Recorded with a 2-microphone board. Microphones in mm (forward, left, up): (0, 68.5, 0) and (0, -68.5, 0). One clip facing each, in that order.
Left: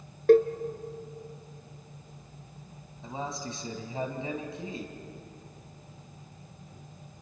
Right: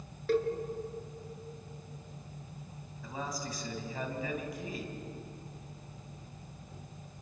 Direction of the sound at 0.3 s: 60° left (ahead or behind).